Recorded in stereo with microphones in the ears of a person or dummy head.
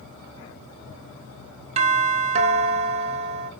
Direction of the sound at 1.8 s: 30° right (ahead or behind).